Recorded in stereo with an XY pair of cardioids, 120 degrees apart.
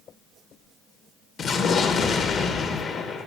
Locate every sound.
1.4 s an explosion: 50° left, 1.2 m